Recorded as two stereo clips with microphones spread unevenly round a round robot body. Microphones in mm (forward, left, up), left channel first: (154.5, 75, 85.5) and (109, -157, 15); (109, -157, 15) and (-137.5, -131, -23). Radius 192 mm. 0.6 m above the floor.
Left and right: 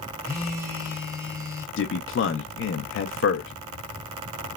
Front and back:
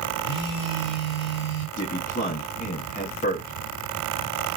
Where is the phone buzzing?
40° right, 1.3 m.